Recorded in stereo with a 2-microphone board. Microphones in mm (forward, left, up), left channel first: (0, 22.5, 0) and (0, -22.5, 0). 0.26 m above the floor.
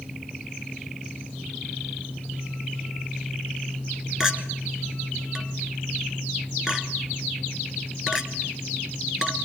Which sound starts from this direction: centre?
A clink, at 4.2 s.